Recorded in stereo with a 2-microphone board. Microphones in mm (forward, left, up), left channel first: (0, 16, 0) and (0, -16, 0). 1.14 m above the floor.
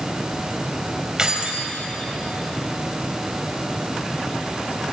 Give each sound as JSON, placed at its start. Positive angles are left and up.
{"t": 1.2, "sound": "keys jangling", "side_deg": -20, "distance_m": 3.5}